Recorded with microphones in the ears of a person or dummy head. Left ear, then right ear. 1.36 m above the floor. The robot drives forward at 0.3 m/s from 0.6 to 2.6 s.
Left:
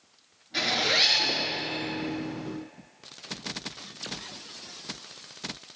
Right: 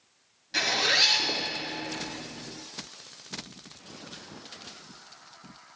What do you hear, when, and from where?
0.5 s a zipper: 45° right (ahead or behind), 1.4 m; by 1.4 s 40° right (ahead or behind), 1.6 m